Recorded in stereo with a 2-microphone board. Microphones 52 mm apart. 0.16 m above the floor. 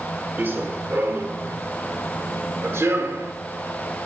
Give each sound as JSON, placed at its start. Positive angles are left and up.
{"t": 0.4, "sound": "running footsteps", "side_deg": -50, "distance_m": 2.5}